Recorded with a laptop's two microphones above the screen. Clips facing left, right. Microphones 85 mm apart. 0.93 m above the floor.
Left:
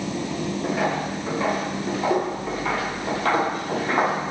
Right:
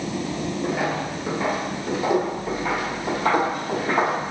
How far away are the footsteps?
About 1.0 m.